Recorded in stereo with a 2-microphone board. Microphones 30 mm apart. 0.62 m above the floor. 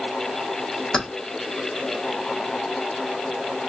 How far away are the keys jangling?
About 0.8 m.